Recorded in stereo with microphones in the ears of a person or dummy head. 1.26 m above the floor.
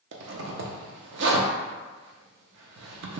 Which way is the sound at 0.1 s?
65° right (ahead or behind).